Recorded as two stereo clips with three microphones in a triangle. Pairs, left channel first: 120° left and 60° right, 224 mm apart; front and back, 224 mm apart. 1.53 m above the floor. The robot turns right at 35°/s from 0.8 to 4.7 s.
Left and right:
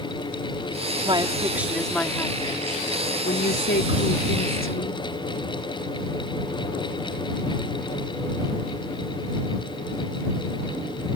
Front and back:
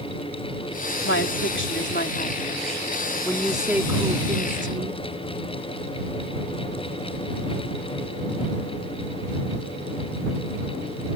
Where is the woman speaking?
5° left; by 5.0 s 130° left.